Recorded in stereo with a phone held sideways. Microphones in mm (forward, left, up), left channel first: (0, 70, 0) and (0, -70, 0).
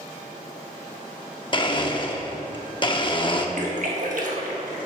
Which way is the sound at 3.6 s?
65° right (ahead or behind).